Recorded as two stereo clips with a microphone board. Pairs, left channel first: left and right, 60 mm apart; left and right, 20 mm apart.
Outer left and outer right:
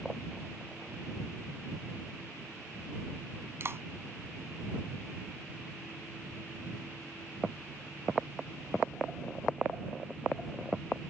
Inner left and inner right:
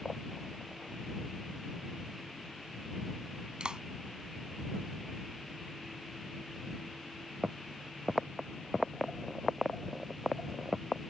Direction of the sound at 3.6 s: 45° right (ahead or behind).